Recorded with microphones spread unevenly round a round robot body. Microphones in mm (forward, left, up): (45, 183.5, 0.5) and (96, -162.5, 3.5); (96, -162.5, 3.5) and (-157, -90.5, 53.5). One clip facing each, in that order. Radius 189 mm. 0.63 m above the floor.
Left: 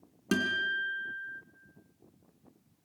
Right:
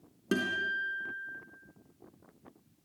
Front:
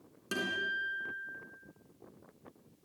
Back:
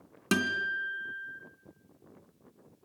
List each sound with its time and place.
0.3 s a guitar: 170° left, 2.5 m